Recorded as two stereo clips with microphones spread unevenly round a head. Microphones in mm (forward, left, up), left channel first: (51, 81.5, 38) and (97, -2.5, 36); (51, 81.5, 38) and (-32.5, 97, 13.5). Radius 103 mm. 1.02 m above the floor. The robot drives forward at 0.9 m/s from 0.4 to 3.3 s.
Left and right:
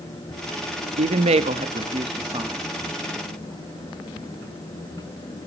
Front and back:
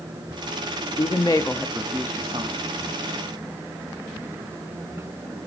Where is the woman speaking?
70° right, 1.3 m; by 2.6 s 135° right, 1.6 m.